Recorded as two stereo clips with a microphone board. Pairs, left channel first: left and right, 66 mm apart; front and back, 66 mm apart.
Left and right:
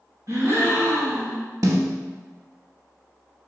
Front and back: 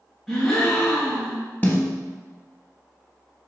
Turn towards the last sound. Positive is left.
turn(degrees=-65)